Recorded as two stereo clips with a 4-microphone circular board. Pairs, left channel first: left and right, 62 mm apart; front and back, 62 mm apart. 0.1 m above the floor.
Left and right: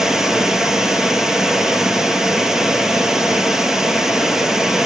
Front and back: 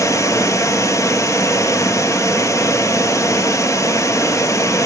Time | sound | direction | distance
0.0 | running water | 10° right | 1.1 m